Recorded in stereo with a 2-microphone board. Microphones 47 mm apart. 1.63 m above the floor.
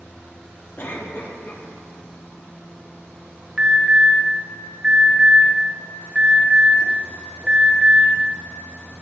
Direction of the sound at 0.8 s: 50° left (ahead or behind).